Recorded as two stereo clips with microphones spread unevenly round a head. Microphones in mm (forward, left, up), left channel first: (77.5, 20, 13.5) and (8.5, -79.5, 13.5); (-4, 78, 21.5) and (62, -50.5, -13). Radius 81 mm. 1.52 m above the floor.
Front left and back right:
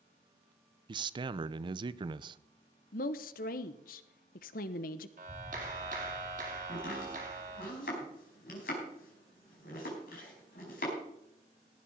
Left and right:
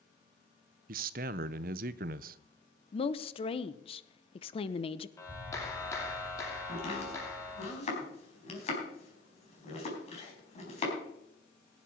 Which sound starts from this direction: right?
A man speaking, at 0.9 s.